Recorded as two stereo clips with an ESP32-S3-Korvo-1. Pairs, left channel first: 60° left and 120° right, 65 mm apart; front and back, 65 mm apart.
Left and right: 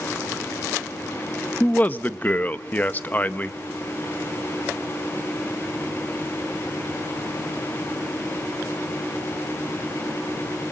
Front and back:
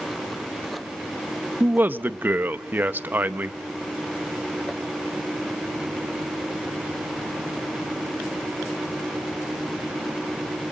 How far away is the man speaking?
About 0.8 m.